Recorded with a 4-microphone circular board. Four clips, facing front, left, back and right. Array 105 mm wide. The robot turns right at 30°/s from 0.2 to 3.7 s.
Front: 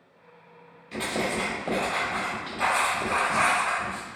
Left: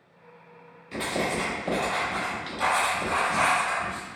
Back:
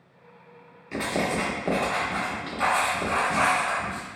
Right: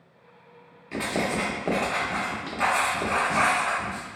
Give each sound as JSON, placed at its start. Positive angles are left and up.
{"t": 0.9, "sound": "writing", "azimuth_deg": -145, "distance_m": 0.7}